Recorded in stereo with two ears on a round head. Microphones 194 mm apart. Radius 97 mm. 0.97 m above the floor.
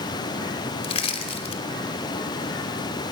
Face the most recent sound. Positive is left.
turn(degrees=30)  # may be behind; listen again after turning